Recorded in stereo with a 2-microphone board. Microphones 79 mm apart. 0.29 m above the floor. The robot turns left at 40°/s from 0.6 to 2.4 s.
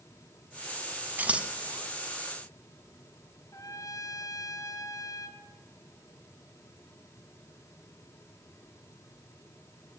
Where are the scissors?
25° right (ahead or behind), 0.9 m; by 1.5 s 10° right (ahead or behind), 0.9 m.